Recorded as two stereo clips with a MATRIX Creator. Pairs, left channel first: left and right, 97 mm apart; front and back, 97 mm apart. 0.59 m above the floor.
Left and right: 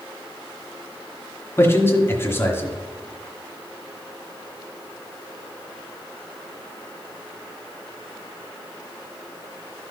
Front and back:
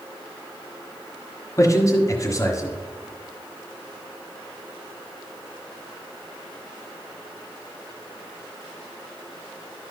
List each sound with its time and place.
1.6 s a man speaking: 40° left, 1.6 m